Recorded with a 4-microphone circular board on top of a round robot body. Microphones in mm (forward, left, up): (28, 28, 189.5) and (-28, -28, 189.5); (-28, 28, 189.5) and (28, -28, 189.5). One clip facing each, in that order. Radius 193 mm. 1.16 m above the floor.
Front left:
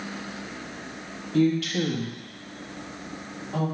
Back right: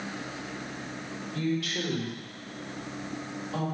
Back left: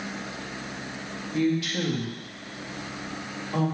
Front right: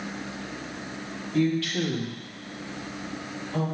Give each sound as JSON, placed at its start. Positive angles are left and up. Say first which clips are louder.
{"t": 1.3, "sound": "a woman speaking", "louder": "front left 8 dB, front right 1 dB", "azimuth_deg": 50, "distance_m": 1.7}